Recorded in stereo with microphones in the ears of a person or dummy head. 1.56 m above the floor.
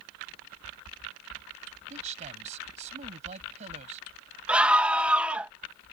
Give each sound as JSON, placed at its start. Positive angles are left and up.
{"t": 1.9, "sound": "a man speaking", "side_deg": -40}
{"t": 4.5, "sound": "a scream", "side_deg": -10}